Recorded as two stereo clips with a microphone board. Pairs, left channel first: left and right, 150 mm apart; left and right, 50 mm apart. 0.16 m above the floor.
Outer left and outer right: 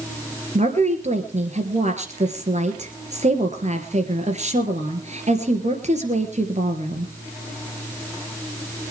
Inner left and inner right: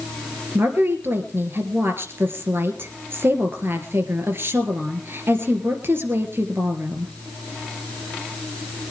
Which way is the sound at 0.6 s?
50° right (ahead or behind).